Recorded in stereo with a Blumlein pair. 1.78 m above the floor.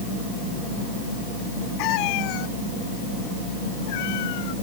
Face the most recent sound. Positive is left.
turn(degrees=50)